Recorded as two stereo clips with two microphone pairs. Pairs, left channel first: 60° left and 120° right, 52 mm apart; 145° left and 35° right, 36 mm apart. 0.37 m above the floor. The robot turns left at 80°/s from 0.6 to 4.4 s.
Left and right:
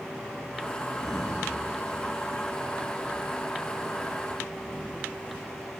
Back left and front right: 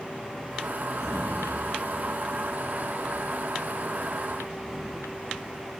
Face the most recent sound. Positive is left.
turn(degrees=150)